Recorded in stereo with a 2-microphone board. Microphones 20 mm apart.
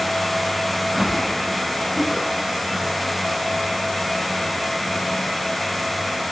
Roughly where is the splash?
Right.